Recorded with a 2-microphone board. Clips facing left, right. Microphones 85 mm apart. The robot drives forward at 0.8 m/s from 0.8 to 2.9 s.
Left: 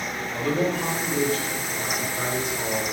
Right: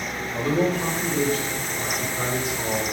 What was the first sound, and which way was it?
A man speaking, centre (ahead or behind).